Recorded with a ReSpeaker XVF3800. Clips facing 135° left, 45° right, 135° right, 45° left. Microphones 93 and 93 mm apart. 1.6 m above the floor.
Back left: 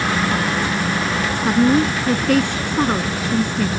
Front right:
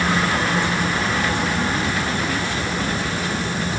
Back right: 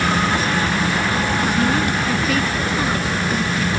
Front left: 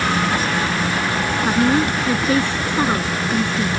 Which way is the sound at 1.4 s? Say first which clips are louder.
Back left 7 dB, front left 5 dB; 110° left.